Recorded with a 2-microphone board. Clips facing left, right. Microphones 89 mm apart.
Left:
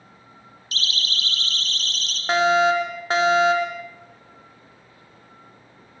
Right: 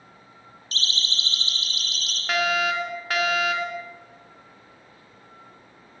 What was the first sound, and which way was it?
A siren, 35° right (ahead or behind).